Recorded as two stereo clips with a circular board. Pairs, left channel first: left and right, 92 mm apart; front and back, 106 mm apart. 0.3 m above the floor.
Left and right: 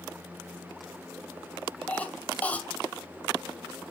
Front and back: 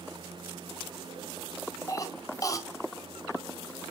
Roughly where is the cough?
Ahead left.